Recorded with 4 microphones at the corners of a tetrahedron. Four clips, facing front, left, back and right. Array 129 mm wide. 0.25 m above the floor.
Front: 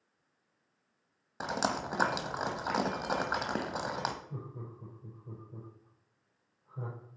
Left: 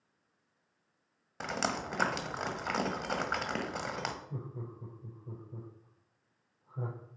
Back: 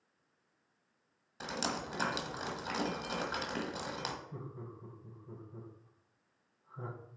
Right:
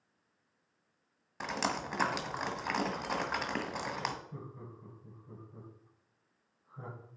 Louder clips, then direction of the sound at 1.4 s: Even, front 5 dB; straight ahead.